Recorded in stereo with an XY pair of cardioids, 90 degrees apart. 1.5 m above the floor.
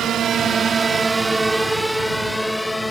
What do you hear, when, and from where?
0.0 s a drone: 70° right; by 2.9 s 20° left